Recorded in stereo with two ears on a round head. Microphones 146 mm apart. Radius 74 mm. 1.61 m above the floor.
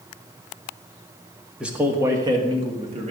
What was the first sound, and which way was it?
A man speaking, 5° right (ahead or behind).